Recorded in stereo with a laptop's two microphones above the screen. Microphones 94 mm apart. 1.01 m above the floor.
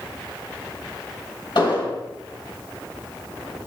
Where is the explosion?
60° left (ahead or behind), 4 m.